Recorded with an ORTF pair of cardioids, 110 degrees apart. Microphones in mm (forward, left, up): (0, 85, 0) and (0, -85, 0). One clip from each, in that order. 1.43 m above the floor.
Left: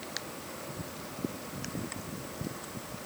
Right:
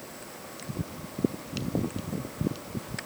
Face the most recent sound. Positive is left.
No sound to turn to.